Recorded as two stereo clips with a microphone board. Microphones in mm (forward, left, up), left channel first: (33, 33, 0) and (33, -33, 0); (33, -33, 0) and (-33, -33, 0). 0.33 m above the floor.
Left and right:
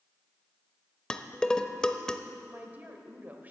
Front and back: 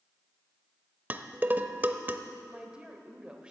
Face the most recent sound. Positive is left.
turn(degrees=-115)